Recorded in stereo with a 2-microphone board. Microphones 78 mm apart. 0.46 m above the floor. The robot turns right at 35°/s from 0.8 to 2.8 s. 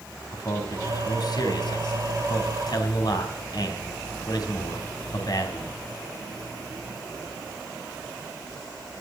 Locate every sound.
0.3 s a man speaking: 50° left (ahead or behind), 3.5 m; by 5.7 s 55° left (ahead or behind), 3.5 m